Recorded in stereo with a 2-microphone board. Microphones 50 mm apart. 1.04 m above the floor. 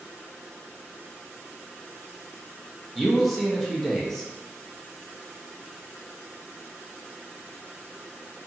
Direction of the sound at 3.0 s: 5° left (ahead or behind).